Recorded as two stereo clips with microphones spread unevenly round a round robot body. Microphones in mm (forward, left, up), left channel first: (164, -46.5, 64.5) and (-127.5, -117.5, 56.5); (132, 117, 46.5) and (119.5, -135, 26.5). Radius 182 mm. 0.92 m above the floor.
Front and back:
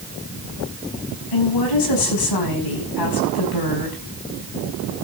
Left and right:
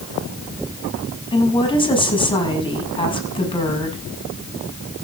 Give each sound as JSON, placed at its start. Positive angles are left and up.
{"t": 1.3, "sound": "a woman speaking", "azimuth_deg": 15, "distance_m": 6.0}